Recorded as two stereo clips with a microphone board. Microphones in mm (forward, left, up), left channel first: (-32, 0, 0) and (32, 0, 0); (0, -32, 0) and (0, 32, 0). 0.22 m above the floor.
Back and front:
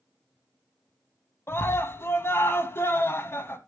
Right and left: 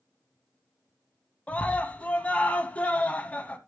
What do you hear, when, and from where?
1.5 s a scream: 150° right, 1.3 m